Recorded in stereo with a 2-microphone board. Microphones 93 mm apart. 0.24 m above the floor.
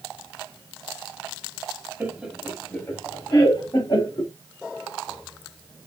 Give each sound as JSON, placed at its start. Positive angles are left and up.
{"t": 2.0, "sound": "laughter", "side_deg": -15, "distance_m": 1.3}